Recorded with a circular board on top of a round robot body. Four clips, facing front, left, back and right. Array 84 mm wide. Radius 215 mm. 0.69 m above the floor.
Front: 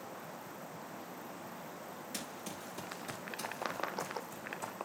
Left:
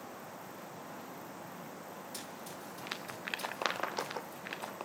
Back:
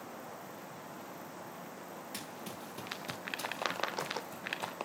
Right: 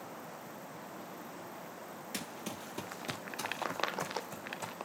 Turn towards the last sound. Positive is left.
turn(degrees=-105)